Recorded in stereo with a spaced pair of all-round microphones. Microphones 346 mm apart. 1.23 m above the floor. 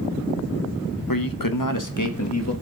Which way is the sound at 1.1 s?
75° left (ahead or behind).